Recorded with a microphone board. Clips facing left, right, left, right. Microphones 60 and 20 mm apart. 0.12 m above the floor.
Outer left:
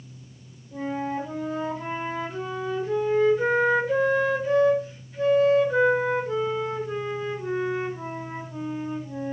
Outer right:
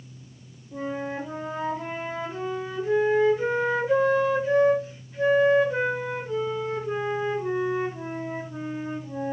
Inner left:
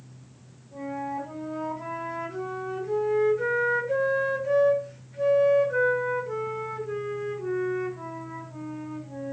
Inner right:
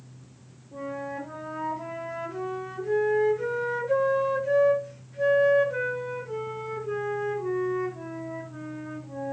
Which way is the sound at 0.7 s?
15° right (ahead or behind).